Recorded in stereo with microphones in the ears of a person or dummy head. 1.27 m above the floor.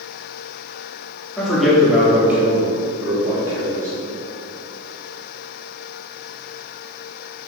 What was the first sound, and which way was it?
A man speaking, centre (ahead or behind).